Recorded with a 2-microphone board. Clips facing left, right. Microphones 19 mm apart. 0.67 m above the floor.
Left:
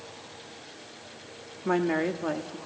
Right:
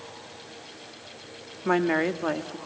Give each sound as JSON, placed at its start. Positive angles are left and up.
{"t": 1.6, "sound": "a woman speaking", "side_deg": -30, "distance_m": 1.0}